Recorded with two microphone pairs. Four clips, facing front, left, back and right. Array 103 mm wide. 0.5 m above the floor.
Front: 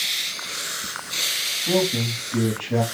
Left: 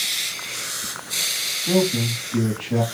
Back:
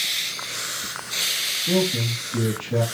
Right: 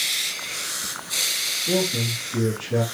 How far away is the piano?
No piano in this recording.